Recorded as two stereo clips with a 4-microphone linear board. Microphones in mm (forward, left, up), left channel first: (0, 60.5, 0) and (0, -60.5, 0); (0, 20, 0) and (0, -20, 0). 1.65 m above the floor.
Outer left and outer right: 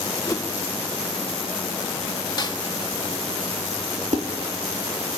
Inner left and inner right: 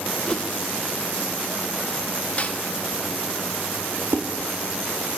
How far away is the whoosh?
About 1.3 m.